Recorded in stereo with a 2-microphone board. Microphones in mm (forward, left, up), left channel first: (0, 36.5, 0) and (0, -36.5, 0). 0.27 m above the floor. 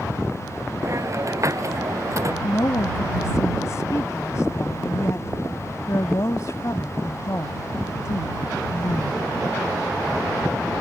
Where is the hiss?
45° right (ahead or behind).